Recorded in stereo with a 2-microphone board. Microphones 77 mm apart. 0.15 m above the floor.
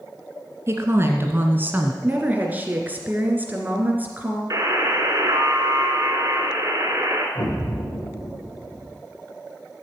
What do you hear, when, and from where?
0.7 s a woman speaking: 35° right (ahead or behind), 2 m; by 1.9 s 20° right (ahead or behind), 1.6 m
2.0 s a woman speaking: 25° right (ahead or behind), 2 m
4.5 s a buzzer: 40° right (ahead or behind), 2.5 m
7.3 s an explosion: 45° left (ahead or behind), 7 m